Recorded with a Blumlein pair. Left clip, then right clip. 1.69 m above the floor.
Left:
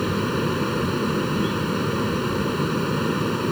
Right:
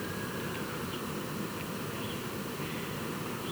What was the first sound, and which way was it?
A fan, 35° left.